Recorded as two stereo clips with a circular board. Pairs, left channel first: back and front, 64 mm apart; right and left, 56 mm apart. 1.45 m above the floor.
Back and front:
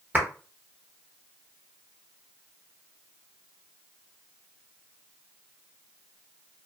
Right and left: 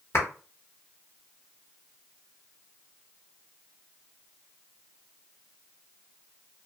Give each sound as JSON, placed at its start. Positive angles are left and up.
{"t": 0.1, "sound": "a clap", "azimuth_deg": -60, "distance_m": 1.1}